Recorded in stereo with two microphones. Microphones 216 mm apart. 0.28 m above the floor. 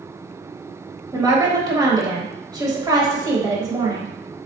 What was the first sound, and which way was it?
A woman speaking, 20° right (ahead or behind).